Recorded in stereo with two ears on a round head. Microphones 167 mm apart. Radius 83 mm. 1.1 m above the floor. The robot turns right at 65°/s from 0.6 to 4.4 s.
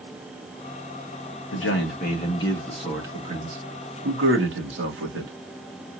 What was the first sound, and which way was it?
A man speaking, 95° left.